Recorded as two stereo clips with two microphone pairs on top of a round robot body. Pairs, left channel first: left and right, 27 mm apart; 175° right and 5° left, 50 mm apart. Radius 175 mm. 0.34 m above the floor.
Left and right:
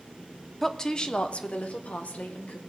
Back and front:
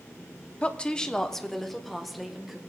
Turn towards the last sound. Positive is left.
turn(degrees=90)